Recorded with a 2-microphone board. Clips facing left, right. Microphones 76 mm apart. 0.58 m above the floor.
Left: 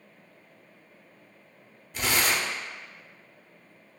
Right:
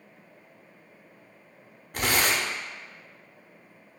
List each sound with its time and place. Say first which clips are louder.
1.9 s tearing paper: right 1 dB; 50° right (ahead or behind), 0.6 m